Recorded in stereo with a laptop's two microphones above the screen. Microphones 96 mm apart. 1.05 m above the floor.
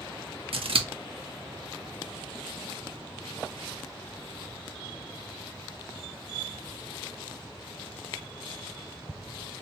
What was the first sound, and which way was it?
Scissors, 75° right (ahead or behind).